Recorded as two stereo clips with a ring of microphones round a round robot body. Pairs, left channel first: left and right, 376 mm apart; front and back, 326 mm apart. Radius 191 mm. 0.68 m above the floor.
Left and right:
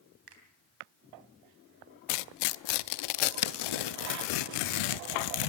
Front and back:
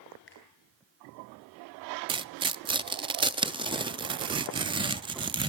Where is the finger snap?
60° right, 3.5 m.